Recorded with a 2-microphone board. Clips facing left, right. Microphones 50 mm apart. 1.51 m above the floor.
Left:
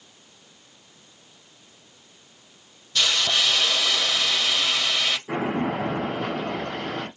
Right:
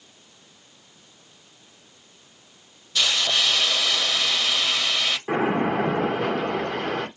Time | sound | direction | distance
3.0 | a hiss | 5° right (ahead or behind) | 1.1 m
5.3 | a splash | 70° right (ahead or behind) | 1.6 m